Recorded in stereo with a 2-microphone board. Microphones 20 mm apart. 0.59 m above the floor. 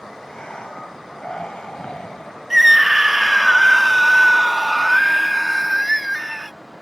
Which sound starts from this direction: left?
Breathing, at 0.2 s.